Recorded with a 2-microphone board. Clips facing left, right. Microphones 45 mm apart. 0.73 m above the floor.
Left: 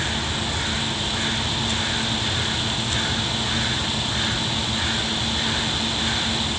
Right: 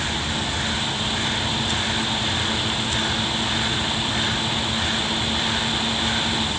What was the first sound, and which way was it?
Only background noise.